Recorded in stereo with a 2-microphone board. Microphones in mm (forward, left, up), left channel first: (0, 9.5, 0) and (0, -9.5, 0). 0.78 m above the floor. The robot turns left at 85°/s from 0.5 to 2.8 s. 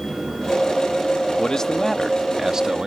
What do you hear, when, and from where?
1.4 s a man speaking: 55° left; by 2.9 s 65° right